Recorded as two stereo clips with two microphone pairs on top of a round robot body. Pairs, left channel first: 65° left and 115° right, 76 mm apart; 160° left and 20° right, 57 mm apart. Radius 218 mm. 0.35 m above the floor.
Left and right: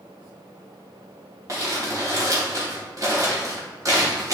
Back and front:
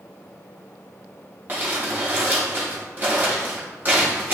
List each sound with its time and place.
1.5 s crumpling: 75° right, 3 m